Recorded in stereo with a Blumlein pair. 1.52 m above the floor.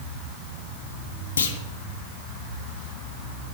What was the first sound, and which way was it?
A clunk, 70° left.